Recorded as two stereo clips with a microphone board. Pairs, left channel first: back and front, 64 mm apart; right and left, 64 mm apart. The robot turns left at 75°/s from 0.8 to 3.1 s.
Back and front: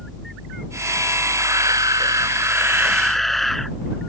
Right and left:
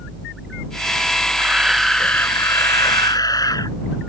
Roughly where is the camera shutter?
Ahead left.